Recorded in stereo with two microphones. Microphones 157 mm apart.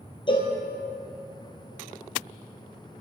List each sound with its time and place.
0.3 s a cowbell: 35° left (ahead or behind), 1.1 m